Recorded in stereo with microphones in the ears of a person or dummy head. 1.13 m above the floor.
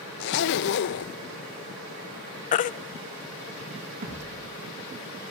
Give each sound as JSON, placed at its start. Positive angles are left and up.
{"t": 0.2, "sound": "a zipper", "side_deg": 60, "distance_m": 0.7}
{"t": 2.5, "sound": "a baby crying", "side_deg": 45, "distance_m": 0.5}
{"t": 4.0, "sound": "a thud", "side_deg": -40, "distance_m": 8.5}